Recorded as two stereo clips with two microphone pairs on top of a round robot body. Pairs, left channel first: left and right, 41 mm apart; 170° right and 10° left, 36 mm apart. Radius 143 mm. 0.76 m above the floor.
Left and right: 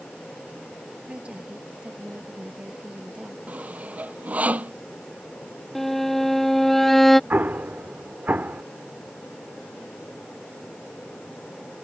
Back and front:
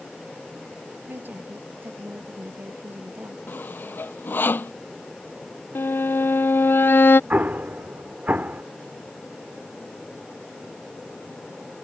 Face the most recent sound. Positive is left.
turn(degrees=-40)